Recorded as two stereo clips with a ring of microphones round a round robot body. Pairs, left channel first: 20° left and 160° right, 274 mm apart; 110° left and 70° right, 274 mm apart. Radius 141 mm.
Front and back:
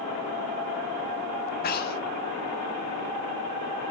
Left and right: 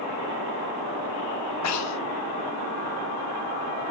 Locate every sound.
1.6 s breathing: 80° left, 1.2 m